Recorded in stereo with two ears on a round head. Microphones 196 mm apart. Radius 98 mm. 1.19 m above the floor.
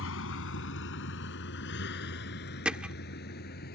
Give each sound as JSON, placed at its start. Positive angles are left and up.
{"t": 0.0, "sound": "a vehicle", "side_deg": 65}
{"t": 2.6, "sound": "hammering", "side_deg": -5}